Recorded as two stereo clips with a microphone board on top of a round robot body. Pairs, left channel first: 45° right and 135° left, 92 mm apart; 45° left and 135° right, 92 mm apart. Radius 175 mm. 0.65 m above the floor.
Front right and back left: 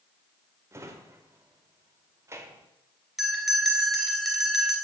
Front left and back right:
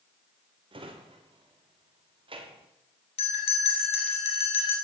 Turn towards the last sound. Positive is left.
turn(degrees=45)